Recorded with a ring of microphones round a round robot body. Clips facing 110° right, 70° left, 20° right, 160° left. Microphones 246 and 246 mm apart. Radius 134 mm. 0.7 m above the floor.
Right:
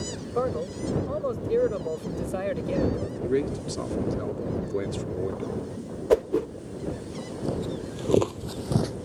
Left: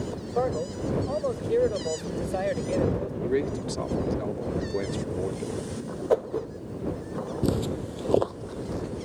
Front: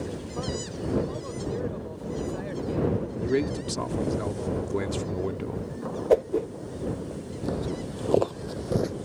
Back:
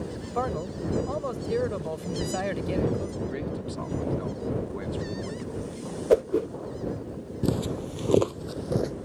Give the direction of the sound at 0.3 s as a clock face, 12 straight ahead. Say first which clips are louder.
Even, back 5 dB; 6 o'clock.